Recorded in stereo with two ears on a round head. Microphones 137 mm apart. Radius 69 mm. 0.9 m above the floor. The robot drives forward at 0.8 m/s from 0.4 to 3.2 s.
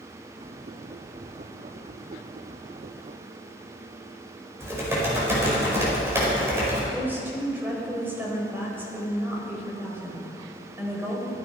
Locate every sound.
4.6 s typing on a keyboard: 15° right (ahead or behind), 5 m
6.9 s a woman speaking: 15° right (ahead or behind), 4 m